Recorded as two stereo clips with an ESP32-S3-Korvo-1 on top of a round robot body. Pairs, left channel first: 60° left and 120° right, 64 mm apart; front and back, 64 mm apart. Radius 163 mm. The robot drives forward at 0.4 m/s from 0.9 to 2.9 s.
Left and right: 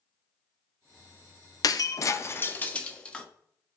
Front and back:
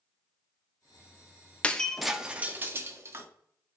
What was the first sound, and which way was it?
Breaking glass, 70° left.